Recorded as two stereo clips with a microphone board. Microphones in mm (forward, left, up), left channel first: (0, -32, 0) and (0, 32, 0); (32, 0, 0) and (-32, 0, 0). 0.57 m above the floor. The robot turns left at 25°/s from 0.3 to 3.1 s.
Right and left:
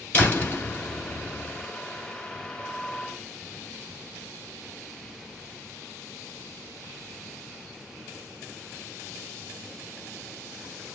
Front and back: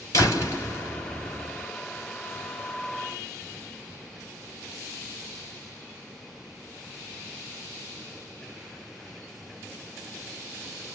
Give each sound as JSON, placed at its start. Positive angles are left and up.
{"t": 0.1, "sound": "a door slam", "azimuth_deg": -30, "distance_m": 1.8}